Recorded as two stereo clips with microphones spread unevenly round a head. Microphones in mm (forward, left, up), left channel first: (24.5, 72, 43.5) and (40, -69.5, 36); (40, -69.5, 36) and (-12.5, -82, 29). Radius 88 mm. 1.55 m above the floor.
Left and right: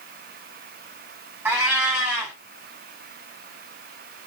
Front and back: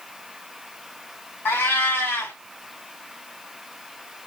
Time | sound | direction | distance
1.4 | a cat meowing | 5° right | 1.9 m